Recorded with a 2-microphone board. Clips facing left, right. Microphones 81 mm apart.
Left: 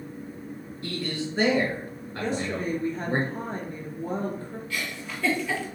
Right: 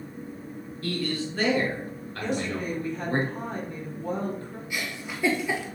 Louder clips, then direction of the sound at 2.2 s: Left 1 dB; 30° left (ahead or behind).